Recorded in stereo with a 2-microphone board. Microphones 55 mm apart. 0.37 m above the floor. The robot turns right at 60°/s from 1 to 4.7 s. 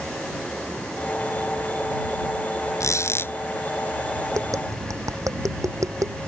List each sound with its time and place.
2.8 s a squeak: 105° left; by 3.3 s 140° left
4.3 s tapping: 70° right (ahead or behind); by 6.2 s 85° right